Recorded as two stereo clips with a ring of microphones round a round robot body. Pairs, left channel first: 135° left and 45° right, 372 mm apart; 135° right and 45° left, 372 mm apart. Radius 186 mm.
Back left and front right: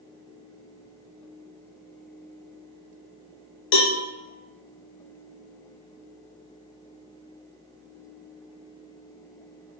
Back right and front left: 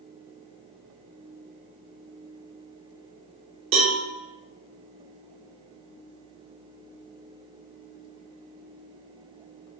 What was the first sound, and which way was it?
A cowbell, 105° left.